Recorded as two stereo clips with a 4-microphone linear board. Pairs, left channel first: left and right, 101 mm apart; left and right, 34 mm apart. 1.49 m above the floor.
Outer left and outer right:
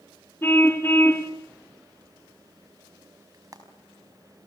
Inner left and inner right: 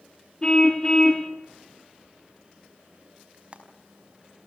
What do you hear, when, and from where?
0.4 s a car horn: 20° left (ahead or behind), 2.5 m
3.3 s frying: 35° right (ahead or behind), 5 m